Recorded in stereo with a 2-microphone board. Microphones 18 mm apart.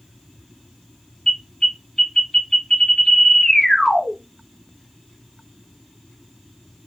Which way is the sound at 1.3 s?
20° left (ahead or behind).